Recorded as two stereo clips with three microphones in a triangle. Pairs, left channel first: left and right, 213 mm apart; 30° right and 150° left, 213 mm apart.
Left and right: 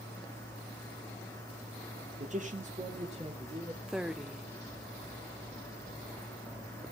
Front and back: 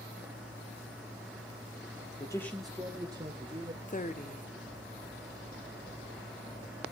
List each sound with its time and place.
2.2 s a man speaking: 85° right, 1.5 m; by 3.8 s 155° right, 2.5 m
3.9 s a woman speaking: 5° right, 0.9 m